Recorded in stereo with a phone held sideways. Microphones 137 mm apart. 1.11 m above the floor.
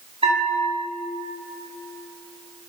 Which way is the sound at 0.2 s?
45° right (ahead or behind).